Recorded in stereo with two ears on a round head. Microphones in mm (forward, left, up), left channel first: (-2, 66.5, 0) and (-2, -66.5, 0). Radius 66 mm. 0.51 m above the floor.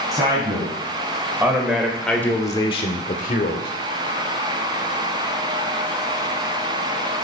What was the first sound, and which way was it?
A man speaking, 25° right (ahead or behind).